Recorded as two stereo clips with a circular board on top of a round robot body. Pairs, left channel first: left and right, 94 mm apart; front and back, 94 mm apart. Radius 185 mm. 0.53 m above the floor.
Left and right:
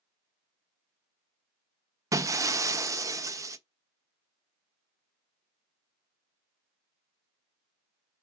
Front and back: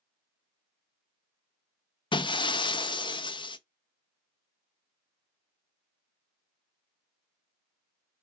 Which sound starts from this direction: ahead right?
Breaking glass, at 2.1 s.